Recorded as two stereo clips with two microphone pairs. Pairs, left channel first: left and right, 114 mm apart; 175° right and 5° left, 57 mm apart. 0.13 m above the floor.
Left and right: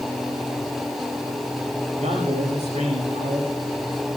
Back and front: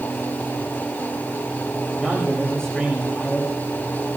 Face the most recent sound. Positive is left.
turn(degrees=-95)